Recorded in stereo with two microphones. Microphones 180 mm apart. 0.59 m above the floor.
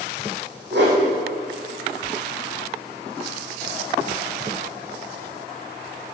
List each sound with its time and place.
0.7 s a whoosh: 70° right (ahead or behind), 5 m